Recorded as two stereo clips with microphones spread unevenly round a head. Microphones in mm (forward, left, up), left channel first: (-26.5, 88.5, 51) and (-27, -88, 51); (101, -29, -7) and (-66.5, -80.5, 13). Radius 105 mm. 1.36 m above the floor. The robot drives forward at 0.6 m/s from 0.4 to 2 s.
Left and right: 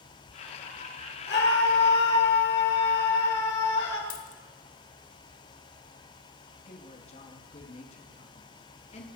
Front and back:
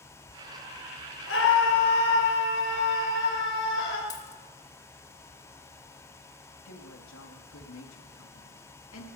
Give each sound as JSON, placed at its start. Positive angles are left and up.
{"t": 1.3, "sound": "a scream", "azimuth_deg": 55, "distance_m": 5.5}
{"t": 4.1, "sound": "a dropped coin", "azimuth_deg": 90, "distance_m": 0.9}
{"t": 6.7, "sound": "a woman speaking", "azimuth_deg": 30, "distance_m": 2.5}